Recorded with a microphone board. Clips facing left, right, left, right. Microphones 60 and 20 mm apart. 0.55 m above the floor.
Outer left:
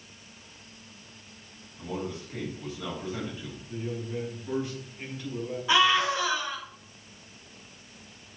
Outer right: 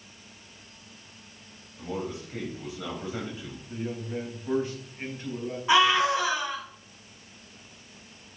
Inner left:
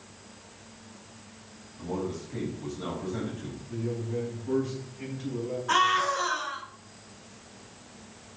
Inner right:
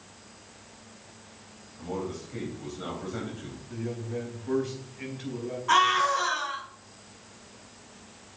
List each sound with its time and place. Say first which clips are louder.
1.8 s a man speaking: outer right 1 dB, inner left 1 dB; 20° right (ahead or behind), 3.5 m
3.7 s a man speaking: outer right 1 dB, inner left 2 dB; 35° right (ahead or behind), 4.5 m
5.7 s a scream: outer right 2 dB, inner right 2 dB; 25° right (ahead or behind), 4.5 m